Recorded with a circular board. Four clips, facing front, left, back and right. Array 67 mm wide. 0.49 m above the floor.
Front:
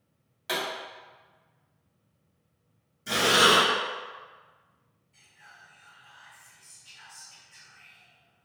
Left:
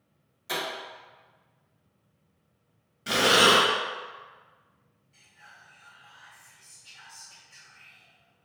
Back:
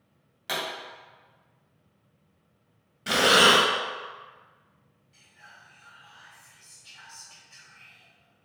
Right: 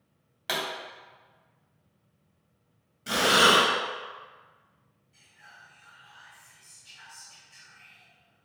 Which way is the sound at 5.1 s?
170° left.